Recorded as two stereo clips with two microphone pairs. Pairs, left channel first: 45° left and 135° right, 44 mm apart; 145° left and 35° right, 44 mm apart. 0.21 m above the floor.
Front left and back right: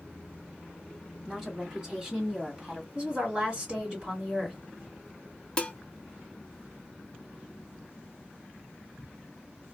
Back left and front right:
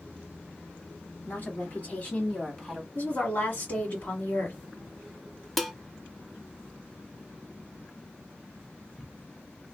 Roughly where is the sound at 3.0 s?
Behind.